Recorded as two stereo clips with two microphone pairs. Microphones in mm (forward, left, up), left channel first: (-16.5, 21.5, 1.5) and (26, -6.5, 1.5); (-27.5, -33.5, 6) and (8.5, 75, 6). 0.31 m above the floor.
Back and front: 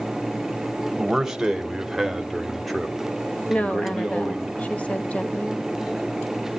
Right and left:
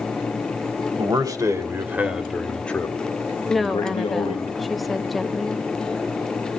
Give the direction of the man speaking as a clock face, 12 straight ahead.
10 o'clock.